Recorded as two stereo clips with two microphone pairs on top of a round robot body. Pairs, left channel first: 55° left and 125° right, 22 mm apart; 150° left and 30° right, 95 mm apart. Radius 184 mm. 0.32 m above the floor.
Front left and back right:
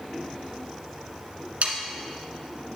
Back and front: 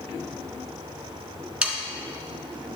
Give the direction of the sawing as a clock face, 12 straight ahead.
4 o'clock.